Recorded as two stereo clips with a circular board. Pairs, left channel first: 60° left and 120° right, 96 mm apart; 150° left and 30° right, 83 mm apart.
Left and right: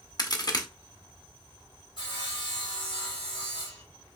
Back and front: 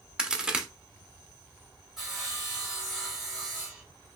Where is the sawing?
55° left, 2 m.